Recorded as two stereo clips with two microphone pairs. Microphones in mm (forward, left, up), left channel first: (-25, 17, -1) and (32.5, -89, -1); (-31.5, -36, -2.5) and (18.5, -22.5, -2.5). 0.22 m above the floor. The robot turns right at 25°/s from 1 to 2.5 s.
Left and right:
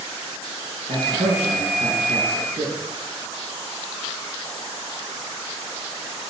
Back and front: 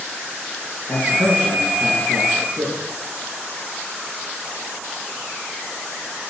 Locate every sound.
0.9 s a man speaking: 70° right, 4.5 m; by 2.8 s 35° right, 4.5 m